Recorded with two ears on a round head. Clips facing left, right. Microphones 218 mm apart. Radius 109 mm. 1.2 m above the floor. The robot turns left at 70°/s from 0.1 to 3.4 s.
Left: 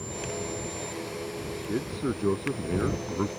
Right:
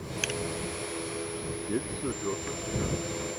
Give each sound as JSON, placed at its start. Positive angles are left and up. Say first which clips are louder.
{"t": 1.7, "sound": "a man speaking", "louder": "left 3 dB", "azimuth_deg": -175}